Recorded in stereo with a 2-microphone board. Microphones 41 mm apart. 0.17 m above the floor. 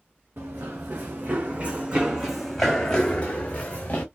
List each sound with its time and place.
0.4 s running footsteps: 60° right (ahead or behind), 1.2 m; by 4.0 s 40° left (ahead or behind), 1.2 m